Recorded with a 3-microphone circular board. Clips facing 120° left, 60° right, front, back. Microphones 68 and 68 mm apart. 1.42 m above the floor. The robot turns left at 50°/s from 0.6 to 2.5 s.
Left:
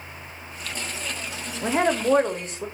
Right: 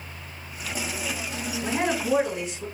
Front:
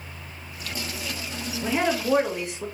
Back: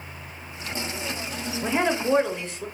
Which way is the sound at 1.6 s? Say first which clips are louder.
Left 5 dB, back 1 dB; 115° left.